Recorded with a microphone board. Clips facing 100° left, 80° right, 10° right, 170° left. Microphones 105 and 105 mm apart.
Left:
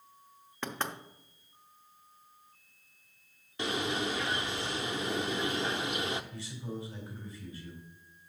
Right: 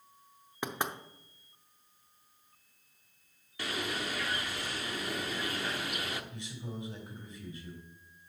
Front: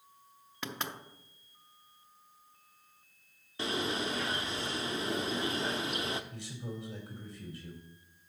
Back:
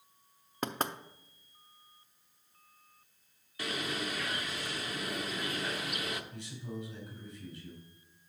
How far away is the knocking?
About 0.5 m.